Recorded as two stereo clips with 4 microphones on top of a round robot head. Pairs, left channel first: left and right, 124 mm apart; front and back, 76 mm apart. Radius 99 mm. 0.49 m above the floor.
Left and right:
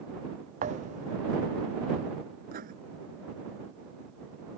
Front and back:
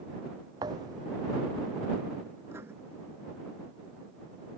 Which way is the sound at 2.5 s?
110° right.